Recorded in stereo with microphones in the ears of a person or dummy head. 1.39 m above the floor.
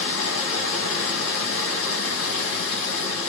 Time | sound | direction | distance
0.0 | running water | 80° left | 1.3 m